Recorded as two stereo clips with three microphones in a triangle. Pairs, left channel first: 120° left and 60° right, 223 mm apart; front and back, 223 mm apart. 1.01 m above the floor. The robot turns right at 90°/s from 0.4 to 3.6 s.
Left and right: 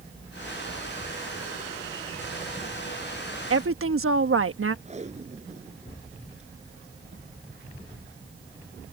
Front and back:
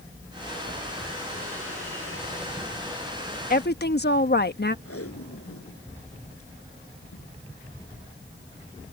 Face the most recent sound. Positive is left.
turn(degrees=0)